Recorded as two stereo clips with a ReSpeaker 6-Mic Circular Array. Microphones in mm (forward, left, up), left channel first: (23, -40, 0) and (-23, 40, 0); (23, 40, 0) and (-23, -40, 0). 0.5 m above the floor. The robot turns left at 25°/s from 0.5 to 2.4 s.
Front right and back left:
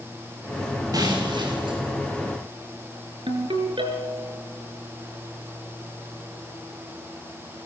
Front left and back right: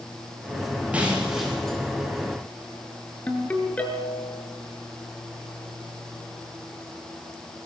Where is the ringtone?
130° left, 5.5 m.